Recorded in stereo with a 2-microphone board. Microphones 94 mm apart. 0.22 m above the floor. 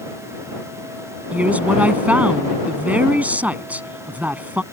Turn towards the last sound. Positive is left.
turn(degrees=-15)  # may be behind; listen again after turning